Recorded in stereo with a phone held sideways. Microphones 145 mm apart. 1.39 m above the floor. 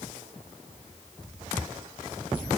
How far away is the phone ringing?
I don't hear a phone ringing.